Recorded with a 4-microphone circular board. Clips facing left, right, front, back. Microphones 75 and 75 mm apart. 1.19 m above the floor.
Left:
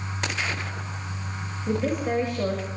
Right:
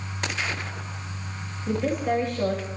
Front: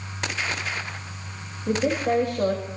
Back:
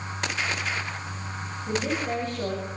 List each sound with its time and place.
1.7 s a woman speaking: 5° left, 6 m